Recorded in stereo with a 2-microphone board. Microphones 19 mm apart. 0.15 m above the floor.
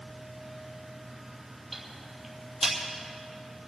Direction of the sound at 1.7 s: Centre (ahead or behind).